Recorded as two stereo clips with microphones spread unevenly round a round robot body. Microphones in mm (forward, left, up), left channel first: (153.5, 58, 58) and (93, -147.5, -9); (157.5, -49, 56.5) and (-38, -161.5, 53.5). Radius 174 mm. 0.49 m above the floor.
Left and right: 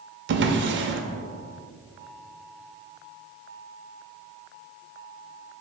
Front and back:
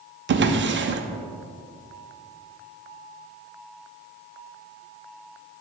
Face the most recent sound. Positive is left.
turn(degrees=-110)